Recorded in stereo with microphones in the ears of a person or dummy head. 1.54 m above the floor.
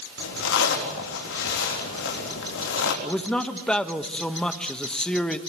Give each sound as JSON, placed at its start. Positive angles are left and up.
{"t": 0.2, "sound": "a zipper", "side_deg": 65, "distance_m": 3.5}
{"t": 3.0, "sound": "a man speaking", "side_deg": 5, "distance_m": 1.3}